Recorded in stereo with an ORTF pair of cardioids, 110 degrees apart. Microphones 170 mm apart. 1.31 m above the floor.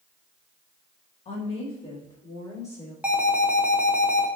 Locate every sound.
1.2 s a woman speaking: 45° left, 1.7 m; by 2.9 s 15° left, 3 m
3.0 s an alarm: 5° right, 0.8 m